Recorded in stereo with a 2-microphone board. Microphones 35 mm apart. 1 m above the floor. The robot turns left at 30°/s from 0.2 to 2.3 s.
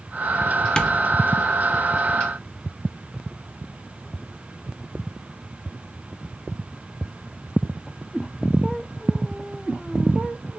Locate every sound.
0.8 s tapping: 25° left (ahead or behind), 0.5 m; by 1.0 s 20° left (ahead or behind), 0.5 m